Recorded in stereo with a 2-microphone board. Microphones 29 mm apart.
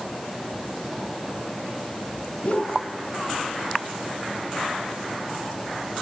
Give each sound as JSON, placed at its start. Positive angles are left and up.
{"t": 2.4, "sound": "a whoosh", "side_deg": 45, "distance_m": 5.5}